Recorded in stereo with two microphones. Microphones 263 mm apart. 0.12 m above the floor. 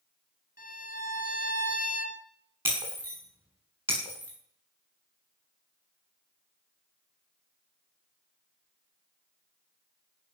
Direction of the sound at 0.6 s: 35° left (ahead or behind).